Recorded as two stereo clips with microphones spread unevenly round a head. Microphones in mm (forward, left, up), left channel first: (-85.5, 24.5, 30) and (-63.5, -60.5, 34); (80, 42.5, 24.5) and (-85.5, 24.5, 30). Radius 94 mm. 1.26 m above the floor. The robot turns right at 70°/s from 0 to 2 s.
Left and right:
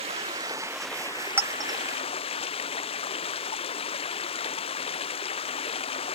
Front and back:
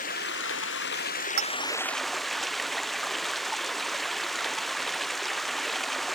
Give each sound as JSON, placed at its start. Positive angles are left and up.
{"t": 0.0, "sound": "running water", "azimuth_deg": -45}
{"t": 1.4, "sound": "a clink", "azimuth_deg": -140}